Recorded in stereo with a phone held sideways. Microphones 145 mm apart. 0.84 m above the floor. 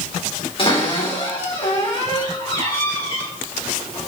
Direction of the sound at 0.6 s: 40° left (ahead or behind).